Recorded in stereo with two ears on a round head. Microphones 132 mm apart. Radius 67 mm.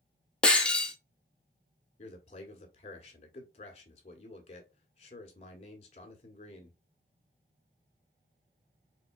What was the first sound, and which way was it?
Breaking glass, 5° left (ahead or behind).